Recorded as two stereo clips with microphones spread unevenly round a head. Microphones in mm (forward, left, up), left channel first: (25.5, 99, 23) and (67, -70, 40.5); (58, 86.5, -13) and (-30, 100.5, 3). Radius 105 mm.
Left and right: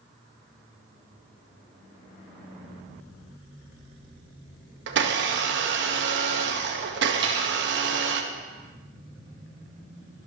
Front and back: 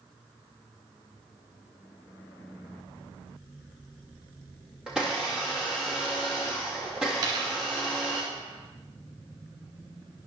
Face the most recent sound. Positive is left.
turn(degrees=-140)